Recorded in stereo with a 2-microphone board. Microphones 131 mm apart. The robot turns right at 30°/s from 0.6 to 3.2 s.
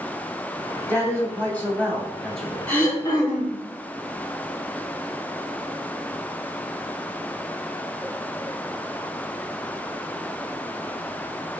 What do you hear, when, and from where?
0.9 s a man speaking: 15° left (ahead or behind), 1.1 m; by 2.6 s 5° left (ahead or behind), 1.1 m
2.7 s throat clearing: 15° left (ahead or behind), 1.5 m; by 3.6 s 30° left (ahead or behind), 1.5 m